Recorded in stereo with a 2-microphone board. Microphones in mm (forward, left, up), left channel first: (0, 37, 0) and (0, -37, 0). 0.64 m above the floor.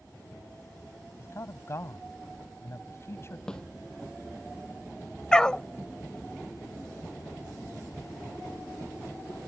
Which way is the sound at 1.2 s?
40° left (ahead or behind).